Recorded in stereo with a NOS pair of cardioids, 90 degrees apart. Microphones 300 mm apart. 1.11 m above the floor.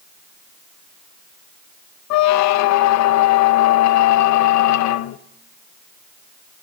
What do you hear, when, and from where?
2.1 s a squeak: 65° left, 0.5 m